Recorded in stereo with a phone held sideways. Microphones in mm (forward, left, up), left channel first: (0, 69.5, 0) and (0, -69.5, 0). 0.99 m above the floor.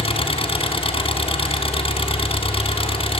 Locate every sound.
0.0 s an engine running: 45° left (ahead or behind), 2 m